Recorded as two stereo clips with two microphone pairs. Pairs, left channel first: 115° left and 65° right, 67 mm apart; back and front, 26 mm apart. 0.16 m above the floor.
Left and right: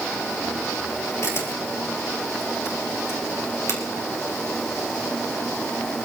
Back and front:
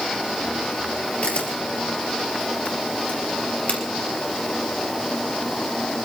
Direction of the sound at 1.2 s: 155° left.